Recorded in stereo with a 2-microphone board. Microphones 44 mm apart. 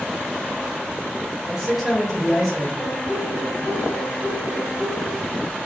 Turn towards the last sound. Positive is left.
turn(degrees=30)  # may be behind; listen again after turning